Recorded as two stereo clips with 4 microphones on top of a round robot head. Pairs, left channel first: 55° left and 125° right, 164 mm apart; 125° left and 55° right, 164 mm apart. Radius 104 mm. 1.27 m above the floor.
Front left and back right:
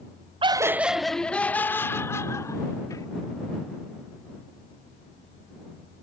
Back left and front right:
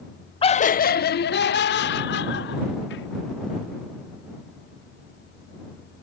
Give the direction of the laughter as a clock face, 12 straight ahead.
6 o'clock.